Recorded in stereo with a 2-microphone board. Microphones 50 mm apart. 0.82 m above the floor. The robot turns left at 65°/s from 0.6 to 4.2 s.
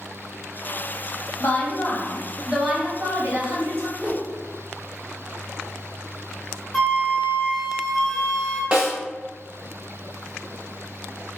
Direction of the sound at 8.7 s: 20° right (ahead or behind).